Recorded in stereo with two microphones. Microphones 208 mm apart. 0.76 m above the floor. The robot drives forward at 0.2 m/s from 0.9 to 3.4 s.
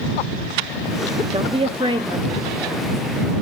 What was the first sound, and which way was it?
A woman speaking, 30° right (ahead or behind).